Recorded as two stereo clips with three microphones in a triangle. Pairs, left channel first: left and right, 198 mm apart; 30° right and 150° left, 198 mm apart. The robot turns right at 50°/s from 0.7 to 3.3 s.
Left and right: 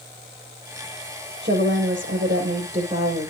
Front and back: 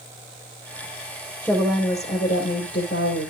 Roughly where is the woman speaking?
Behind right.